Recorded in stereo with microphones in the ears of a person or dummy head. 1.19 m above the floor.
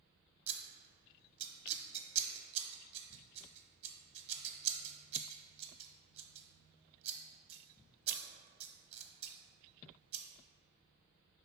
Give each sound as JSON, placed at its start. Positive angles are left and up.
{"t": 0.5, "sound": "scissors", "side_deg": -35, "distance_m": 0.7}